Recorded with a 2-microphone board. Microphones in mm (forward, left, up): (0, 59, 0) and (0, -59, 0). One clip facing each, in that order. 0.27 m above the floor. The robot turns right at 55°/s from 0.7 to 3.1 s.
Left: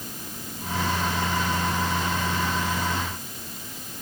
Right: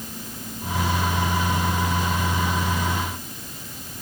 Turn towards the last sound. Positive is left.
No sound to turn to.